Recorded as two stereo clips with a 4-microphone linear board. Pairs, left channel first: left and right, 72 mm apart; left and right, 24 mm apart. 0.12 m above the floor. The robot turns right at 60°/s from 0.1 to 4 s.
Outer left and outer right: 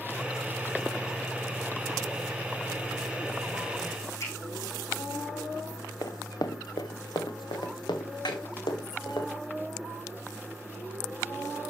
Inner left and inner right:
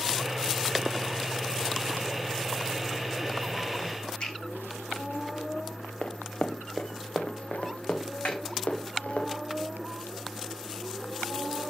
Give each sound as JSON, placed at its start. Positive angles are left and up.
{"t": 4.2, "sound": "a finger snap", "side_deg": 40, "distance_m": 6.0}
{"t": 6.0, "sound": "running footsteps", "side_deg": 55, "distance_m": 1.1}
{"t": 8.2, "sound": "a snare drum", "side_deg": 75, "distance_m": 2.0}